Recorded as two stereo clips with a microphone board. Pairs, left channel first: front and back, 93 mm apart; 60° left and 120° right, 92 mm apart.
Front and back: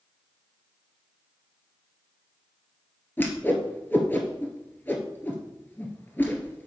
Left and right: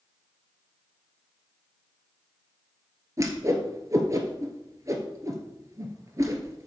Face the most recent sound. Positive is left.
turn(degrees=-70)